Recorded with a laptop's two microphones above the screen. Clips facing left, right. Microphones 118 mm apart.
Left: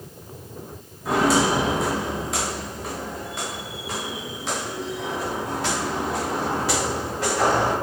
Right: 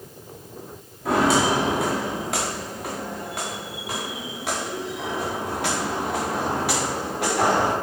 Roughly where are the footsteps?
Right.